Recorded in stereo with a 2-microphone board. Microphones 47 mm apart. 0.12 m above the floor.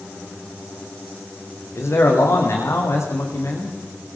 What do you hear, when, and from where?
1.8 s a man speaking: 75° left (ahead or behind), 6.5 m